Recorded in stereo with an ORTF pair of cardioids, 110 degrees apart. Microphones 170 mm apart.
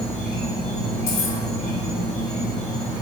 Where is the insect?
5° left, 1.6 m.